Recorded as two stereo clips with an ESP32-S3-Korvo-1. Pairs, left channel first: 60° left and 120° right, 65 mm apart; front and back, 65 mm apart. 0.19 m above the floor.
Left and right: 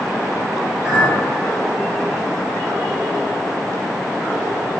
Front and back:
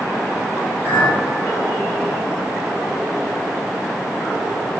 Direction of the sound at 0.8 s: 50° right.